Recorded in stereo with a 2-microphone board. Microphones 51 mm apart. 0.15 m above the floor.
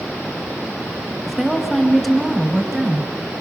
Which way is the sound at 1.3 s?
5° left (ahead or behind).